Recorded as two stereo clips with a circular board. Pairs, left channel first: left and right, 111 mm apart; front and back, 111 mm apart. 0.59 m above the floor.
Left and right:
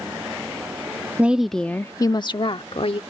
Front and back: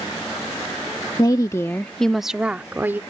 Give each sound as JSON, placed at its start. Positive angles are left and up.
{"t": 1.2, "sound": "a woman speaking", "azimuth_deg": -25}